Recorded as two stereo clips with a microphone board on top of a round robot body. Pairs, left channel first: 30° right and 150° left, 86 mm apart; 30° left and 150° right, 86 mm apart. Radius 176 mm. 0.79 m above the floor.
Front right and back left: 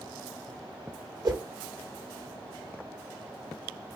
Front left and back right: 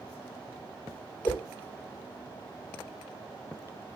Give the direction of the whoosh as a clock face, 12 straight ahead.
9 o'clock.